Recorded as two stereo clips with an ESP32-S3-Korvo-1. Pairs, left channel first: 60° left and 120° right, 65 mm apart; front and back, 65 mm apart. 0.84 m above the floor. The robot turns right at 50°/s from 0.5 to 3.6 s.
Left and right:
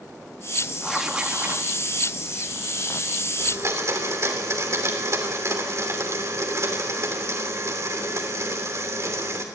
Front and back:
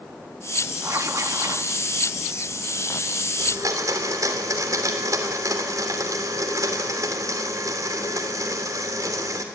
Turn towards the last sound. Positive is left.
turn(degrees=-155)